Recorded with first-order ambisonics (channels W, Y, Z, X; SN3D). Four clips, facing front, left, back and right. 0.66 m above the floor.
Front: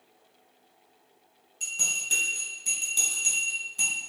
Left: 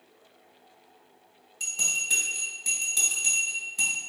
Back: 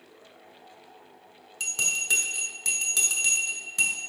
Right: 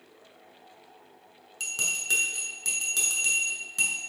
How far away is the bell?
About 1.4 m.